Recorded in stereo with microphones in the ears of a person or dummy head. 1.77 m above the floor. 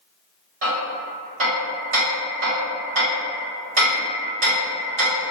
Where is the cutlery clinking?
I don't hear cutlery clinking.